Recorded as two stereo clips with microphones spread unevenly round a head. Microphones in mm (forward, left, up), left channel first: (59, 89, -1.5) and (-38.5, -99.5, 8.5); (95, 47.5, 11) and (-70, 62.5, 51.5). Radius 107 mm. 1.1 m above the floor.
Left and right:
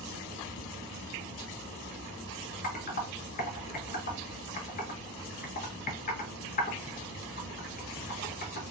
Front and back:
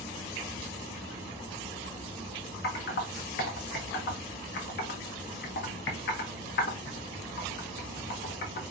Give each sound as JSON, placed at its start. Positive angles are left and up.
{"t": 2.6, "sound": "typing on a keyboard", "azimuth_deg": 10, "distance_m": 0.9}